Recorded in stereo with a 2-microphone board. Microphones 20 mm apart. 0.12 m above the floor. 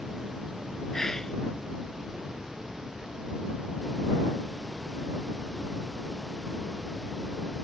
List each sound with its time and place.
0.9 s whispering: 25° left (ahead or behind)